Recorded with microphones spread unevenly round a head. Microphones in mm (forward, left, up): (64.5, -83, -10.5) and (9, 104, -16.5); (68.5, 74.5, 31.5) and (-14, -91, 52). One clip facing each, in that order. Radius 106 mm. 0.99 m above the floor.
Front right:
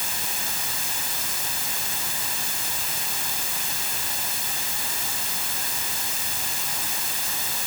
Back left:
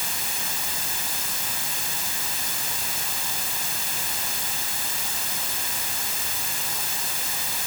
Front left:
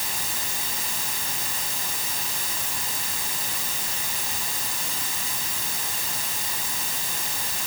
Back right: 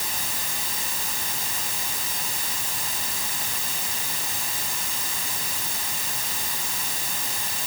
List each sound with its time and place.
Only background noise.